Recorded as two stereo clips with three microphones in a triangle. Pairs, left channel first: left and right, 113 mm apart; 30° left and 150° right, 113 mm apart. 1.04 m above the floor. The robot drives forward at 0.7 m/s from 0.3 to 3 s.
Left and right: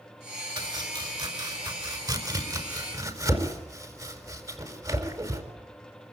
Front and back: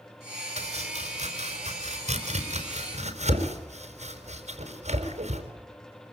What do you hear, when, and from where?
0.6 s chopping: 135° right, 3.5 m; by 5.4 s 150° right, 5 m